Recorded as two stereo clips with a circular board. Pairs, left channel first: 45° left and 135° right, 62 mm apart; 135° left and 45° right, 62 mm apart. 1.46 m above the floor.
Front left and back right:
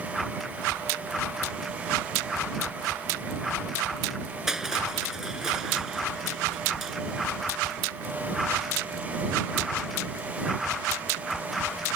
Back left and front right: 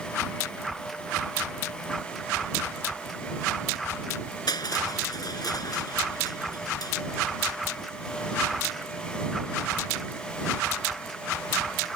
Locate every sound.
4.5 s crushing: 140° left